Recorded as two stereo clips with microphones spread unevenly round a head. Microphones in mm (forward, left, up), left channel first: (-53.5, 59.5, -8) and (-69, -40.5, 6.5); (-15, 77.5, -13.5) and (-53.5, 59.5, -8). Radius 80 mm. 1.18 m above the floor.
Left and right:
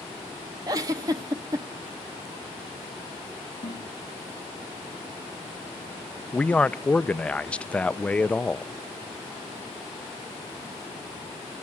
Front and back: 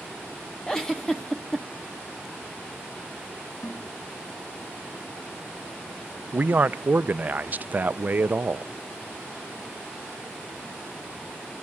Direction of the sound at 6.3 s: 155° left.